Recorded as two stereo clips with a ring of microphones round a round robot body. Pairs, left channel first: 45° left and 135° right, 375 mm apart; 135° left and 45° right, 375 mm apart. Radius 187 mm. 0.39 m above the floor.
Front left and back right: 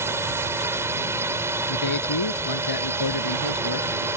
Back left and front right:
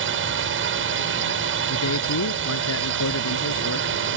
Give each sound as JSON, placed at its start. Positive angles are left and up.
{"t": 0.0, "sound": "a drone", "azimuth_deg": -55}
{"t": 1.7, "sound": "a man speaking", "azimuth_deg": 85}